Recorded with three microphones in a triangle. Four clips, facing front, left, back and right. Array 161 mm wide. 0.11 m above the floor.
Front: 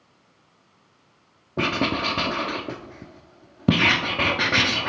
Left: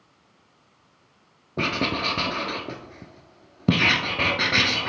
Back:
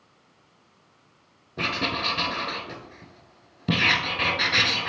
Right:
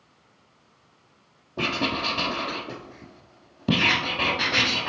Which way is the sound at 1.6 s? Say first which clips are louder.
Left 1 dB, front 5 dB; 20° left.